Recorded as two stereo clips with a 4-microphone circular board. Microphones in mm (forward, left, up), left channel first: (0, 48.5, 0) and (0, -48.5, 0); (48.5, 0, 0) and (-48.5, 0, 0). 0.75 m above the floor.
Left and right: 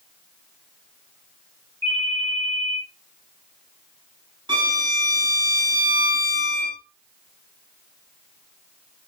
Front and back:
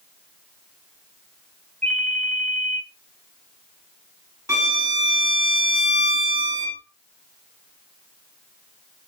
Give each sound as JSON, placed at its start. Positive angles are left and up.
{"t": 1.8, "sound": "a ringtone", "azimuth_deg": -80, "distance_m": 2.0}
{"t": 4.5, "sound": "a violin", "azimuth_deg": -125, "distance_m": 2.5}